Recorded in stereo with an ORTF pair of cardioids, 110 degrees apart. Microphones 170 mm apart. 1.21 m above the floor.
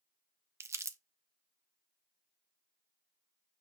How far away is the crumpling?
About 0.7 m.